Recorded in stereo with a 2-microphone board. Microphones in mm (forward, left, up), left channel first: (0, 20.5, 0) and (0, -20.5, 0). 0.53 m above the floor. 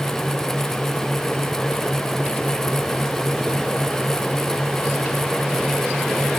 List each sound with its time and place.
Only background noise.